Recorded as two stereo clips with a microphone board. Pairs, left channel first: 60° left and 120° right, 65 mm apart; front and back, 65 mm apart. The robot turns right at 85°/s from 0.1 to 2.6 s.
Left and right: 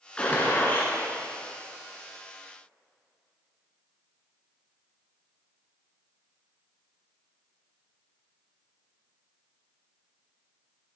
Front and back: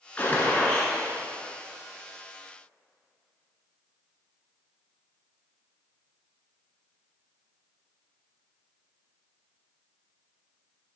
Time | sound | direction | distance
0.2 | a gunshot | 15° left | 1.3 m